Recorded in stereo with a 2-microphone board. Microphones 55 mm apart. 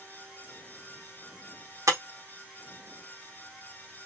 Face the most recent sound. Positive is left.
turn(degrees=-80)